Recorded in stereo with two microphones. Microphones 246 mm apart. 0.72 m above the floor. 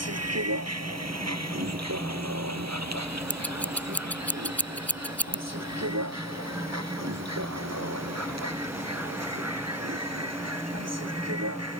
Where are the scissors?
5° left (ahead or behind).